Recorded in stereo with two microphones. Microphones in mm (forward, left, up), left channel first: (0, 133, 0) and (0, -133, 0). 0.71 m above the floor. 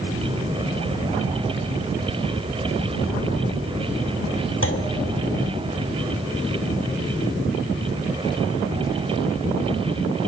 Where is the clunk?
50° left (ahead or behind), 1.7 m.